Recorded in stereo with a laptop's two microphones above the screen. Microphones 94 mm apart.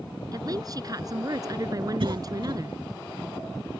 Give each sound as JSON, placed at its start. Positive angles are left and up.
{"t": 0.3, "sound": "a woman speaking", "side_deg": -40}
{"t": 2.0, "sound": "a cough", "side_deg": -60}